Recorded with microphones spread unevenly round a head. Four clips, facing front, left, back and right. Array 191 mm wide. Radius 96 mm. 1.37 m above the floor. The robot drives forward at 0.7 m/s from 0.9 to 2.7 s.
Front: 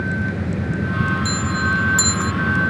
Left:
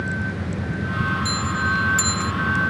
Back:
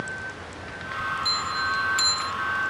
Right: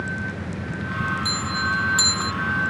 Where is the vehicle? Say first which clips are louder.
Left 2 dB, front 11 dB; 5° left; by 2.7 s 10° left.